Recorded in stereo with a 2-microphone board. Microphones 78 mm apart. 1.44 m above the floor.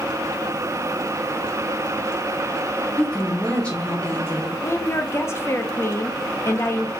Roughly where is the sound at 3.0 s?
Centre.